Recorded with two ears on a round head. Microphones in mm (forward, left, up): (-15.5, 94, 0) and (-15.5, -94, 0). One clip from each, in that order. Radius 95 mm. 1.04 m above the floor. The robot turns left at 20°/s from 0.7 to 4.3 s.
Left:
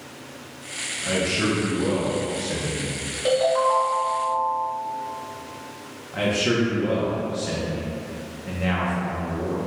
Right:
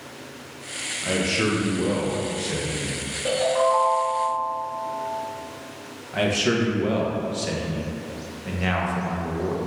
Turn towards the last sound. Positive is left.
turn(degrees=-30)  # may be behind; listen again after turning